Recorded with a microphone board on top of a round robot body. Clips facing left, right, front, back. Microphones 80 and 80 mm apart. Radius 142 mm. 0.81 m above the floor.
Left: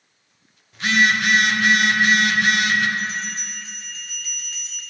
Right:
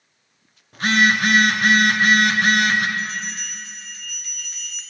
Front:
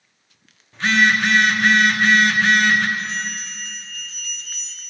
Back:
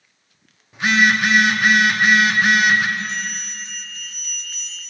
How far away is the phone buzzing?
About 0.9 m.